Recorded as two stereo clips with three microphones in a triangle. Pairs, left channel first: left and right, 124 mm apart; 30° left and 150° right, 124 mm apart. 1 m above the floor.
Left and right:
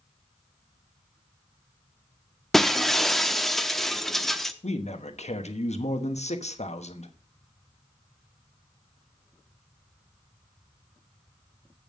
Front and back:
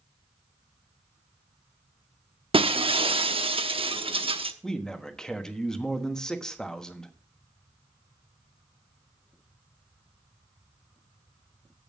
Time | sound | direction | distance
2.5 | breaking glass | 175° left | 0.7 m
4.6 | a man speaking | 115° left | 1.2 m